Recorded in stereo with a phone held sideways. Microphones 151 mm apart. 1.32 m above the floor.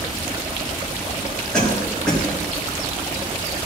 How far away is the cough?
About 3 m.